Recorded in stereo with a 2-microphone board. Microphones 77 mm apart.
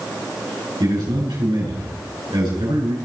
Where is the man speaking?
85° right, 8 m.